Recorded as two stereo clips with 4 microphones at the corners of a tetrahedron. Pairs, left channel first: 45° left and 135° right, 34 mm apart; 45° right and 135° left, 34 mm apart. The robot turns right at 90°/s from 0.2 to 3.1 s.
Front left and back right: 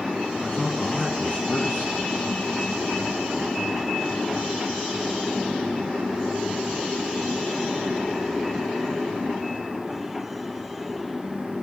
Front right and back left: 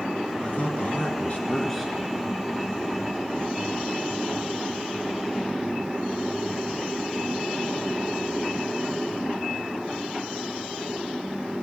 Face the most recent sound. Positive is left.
turn(degrees=155)